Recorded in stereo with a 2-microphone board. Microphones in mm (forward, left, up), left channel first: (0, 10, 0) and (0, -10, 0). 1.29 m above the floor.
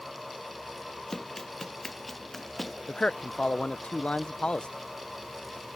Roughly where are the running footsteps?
Centre.